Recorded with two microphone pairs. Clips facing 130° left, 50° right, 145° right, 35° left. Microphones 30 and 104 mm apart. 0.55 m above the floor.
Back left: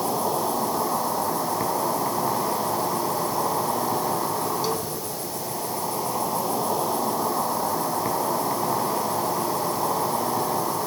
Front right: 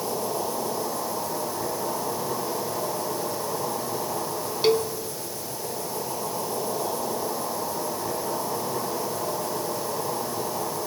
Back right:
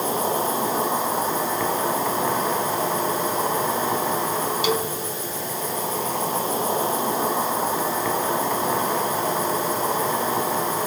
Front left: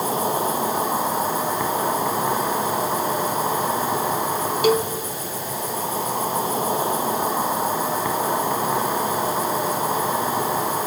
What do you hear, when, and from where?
0.0 s an insect: 115° left, 5.5 m
4.6 s a cowbell: 10° right, 1.1 m